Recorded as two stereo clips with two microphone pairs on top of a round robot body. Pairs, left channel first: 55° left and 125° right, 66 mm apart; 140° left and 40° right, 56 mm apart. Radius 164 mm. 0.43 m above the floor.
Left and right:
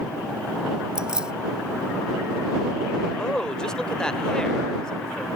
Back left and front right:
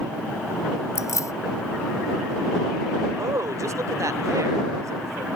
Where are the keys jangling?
160° left.